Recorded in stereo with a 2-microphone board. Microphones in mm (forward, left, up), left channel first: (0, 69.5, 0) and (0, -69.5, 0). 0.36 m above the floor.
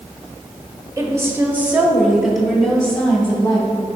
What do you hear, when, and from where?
1.0 s a woman speaking: 25° right (ahead or behind), 1.0 m; by 3.9 s 15° left (ahead or behind), 2 m